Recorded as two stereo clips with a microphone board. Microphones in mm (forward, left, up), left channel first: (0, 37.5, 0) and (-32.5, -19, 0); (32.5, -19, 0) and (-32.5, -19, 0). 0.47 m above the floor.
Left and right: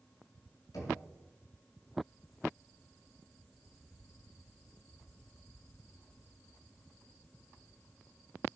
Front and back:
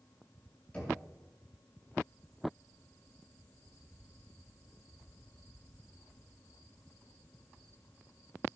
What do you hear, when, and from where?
0.7 s knocking: 70° left, 5.5 m